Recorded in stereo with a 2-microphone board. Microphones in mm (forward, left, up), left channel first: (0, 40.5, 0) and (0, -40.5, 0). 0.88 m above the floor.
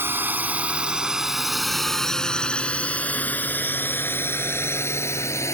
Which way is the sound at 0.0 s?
25° right (ahead or behind).